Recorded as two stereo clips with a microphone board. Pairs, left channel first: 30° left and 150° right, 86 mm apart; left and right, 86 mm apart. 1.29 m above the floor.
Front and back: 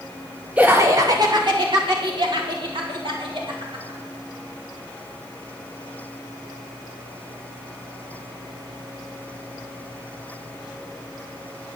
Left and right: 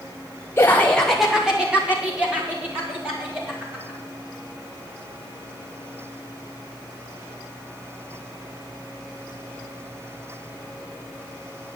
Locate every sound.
0.6 s laughter: 140° left, 0.7 m; by 4.0 s 155° right, 4 m